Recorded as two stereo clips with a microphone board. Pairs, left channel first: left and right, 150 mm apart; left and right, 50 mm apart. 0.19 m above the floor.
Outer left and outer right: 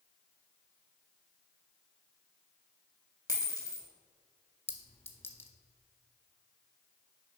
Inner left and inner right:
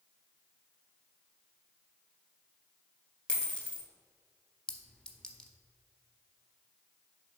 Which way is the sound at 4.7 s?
15° left (ahead or behind).